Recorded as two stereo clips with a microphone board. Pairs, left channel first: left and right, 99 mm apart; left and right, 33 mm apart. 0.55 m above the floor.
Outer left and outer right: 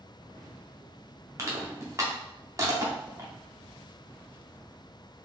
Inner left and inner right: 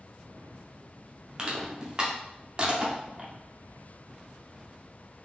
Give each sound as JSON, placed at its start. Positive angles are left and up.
{"t": 1.4, "sound": "crushing", "side_deg": -30, "distance_m": 1.0}